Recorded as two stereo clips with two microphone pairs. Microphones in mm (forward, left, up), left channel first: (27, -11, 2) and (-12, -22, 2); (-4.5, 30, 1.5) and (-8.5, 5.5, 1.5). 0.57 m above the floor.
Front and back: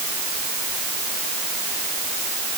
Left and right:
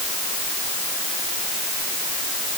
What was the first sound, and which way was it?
Only background noise.